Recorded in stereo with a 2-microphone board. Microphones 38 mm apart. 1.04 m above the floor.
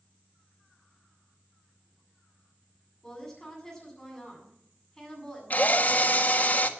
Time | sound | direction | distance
3.0 | a woman speaking | 10° left (ahead or behind) | 8 m
5.5 | a drill | 45° left (ahead or behind) | 1.4 m